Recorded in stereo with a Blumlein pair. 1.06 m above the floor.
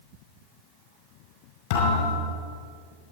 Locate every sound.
1.7 s a thud: 50° left, 5 m